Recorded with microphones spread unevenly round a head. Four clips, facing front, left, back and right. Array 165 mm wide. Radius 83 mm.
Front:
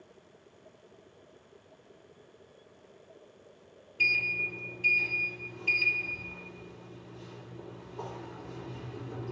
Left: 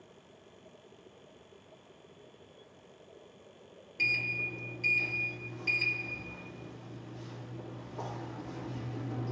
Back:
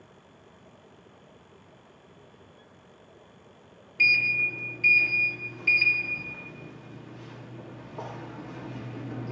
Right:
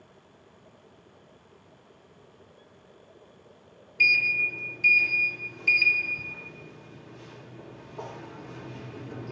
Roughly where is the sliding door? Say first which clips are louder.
Right 8 dB, back 5 dB; behind.